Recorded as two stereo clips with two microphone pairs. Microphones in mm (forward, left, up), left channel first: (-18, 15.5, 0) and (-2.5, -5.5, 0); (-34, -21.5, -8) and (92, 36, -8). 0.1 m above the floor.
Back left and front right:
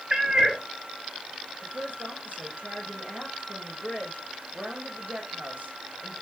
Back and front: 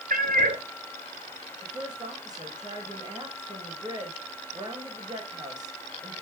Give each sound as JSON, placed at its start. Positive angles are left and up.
{"t": 0.1, "sound": "a cat meowing", "azimuth_deg": 15, "distance_m": 2.5}
{"t": 1.6, "sound": "a woman speaking", "azimuth_deg": -35, "distance_m": 7.0}